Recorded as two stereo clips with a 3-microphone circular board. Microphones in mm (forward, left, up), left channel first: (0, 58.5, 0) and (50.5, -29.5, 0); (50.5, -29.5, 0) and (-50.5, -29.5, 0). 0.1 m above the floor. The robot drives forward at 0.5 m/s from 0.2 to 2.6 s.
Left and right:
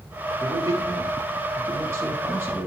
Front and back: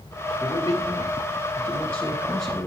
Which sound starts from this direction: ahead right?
A man speaking, at 0.4 s.